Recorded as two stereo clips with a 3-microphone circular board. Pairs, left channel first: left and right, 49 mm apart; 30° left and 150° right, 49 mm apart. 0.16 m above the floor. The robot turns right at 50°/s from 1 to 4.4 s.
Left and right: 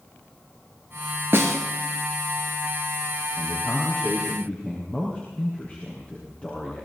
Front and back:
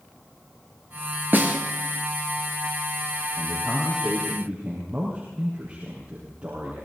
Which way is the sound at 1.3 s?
110° right.